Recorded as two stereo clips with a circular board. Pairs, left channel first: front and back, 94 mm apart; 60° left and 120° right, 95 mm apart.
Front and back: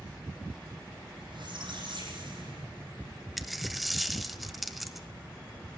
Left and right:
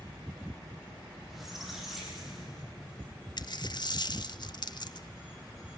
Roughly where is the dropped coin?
Left.